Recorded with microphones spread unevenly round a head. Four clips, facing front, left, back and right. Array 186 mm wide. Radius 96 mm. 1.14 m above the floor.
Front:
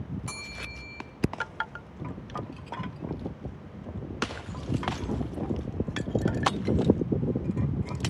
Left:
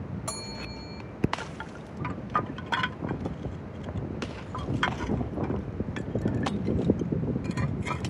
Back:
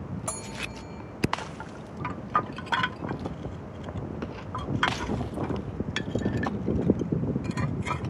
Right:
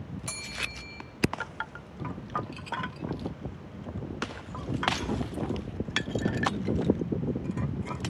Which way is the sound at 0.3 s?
175° left.